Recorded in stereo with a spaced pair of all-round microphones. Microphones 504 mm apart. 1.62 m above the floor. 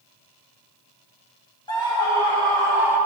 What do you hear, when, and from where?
1.7 s a scream: 10° left (ahead or behind), 1.2 m; by 3.0 s 5° left (ahead or behind), 2.5 m